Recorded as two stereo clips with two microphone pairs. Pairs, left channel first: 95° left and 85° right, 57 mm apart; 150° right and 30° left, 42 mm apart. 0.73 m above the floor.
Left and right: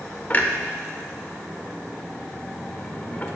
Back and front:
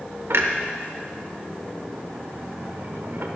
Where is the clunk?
30° left, 0.8 m.